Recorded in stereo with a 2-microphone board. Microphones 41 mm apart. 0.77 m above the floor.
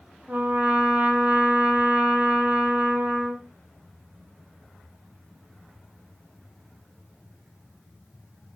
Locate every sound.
0.3 s a trumpet: 55° right (ahead or behind), 0.7 m